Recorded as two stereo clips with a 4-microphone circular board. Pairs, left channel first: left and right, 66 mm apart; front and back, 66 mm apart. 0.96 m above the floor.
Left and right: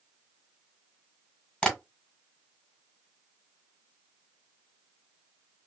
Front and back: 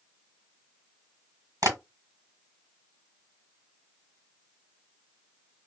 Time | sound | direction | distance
1.6 | tapping | 160° left | 1.3 m